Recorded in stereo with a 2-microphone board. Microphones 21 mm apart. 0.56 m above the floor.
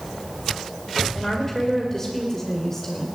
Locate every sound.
1.1 s a woman speaking: 20° left (ahead or behind), 2 m